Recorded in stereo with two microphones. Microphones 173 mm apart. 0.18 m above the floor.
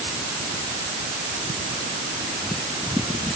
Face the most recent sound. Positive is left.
No sound to turn to.